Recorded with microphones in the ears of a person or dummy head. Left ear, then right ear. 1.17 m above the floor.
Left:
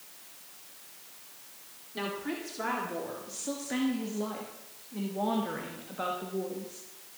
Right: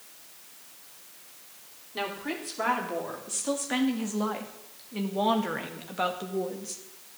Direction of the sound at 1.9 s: 20° right (ahead or behind).